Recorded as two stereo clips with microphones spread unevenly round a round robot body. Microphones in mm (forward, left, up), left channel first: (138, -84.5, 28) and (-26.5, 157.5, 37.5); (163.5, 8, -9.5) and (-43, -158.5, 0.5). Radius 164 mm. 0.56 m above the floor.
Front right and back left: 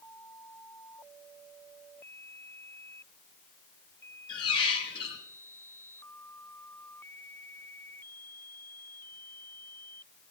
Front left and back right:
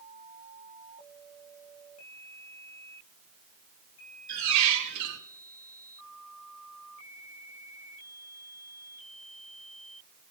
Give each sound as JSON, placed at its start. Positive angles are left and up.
{"t": 4.3, "sound": "a squeak", "azimuth_deg": -130, "distance_m": 1.4}